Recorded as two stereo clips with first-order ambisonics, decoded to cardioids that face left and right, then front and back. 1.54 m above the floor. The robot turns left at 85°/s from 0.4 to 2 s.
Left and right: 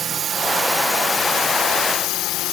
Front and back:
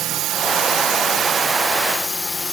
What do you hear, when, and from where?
0.0 s a drone: 150° right; by 2.5 s 75° left